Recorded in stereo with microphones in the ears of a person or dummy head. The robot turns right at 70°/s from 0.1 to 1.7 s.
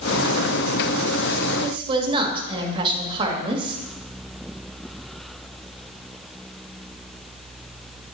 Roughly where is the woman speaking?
Right.